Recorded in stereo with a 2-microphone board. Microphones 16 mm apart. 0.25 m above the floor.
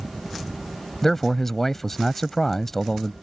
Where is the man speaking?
20° left (ahead or behind).